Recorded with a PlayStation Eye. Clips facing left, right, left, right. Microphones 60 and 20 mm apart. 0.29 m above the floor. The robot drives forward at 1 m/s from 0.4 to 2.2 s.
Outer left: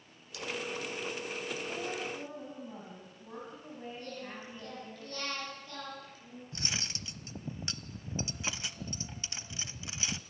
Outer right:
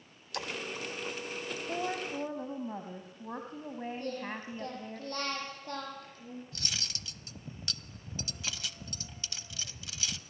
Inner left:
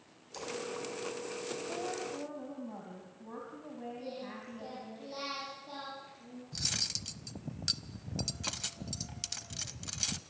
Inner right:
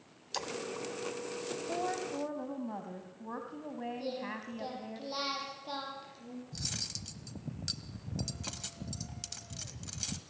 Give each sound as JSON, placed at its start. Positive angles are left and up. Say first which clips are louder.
{"t": 0.3, "sound": "a splash", "louder": "outer right 2 dB, inner right 4 dB", "side_deg": -55, "distance_m": 2.0}
{"t": 1.7, "sound": "a woman speaking", "louder": "outer right 3 dB, inner right 5 dB", "side_deg": -45, "distance_m": 2.5}
{"t": 4.0, "sound": "singing", "louder": "outer right 5 dB, inner right 4 dB", "side_deg": -45, "distance_m": 9.0}
{"t": 6.5, "sound": "cutlery clinking", "louder": "outer left 6 dB, inner left 5 dB", "side_deg": 25, "distance_m": 0.8}